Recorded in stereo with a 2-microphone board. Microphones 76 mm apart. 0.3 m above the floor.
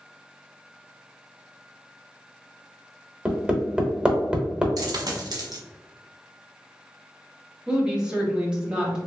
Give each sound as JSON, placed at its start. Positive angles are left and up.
{"t": 3.2, "sound": "hammering", "side_deg": -15, "distance_m": 0.7}
{"t": 4.8, "sound": "a dropped coin", "side_deg": -60, "distance_m": 0.9}
{"t": 7.7, "sound": "a woman speaking", "side_deg": -10, "distance_m": 1.1}